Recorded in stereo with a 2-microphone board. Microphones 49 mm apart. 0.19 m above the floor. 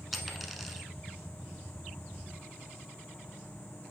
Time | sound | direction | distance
0.1 | a dropped coin | centre (ahead or behind) | 0.9 m